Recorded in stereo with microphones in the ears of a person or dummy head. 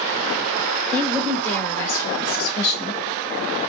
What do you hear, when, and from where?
0.9 s a woman speaking: 5° left (ahead or behind), 2.5 m; by 3.0 s 45° left (ahead or behind), 1.2 m